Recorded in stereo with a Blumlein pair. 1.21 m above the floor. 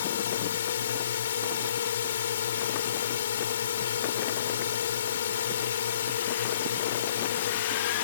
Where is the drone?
60° left.